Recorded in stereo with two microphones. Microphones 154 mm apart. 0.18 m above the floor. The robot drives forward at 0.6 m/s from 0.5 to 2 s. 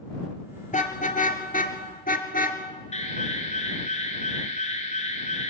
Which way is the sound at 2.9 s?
45° left (ahead or behind).